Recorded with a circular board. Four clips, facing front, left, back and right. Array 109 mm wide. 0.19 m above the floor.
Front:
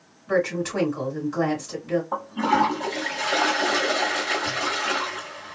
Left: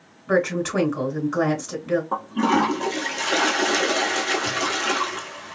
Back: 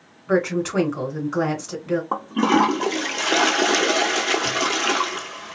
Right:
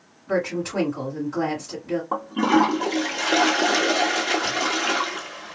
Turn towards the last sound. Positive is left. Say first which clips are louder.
# right 4 dB, back 5 dB
turn(degrees=-170)